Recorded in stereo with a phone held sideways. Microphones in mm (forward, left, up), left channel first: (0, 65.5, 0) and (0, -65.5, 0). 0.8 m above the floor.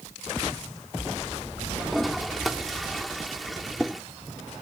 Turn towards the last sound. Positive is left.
turn(degrees=0)  # may be behind; listen again after turning